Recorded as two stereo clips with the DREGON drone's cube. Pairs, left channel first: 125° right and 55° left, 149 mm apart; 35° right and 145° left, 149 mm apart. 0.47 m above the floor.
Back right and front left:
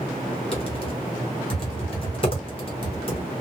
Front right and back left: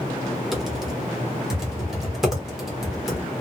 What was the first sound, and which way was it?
Typing on a keyboard, 130° right.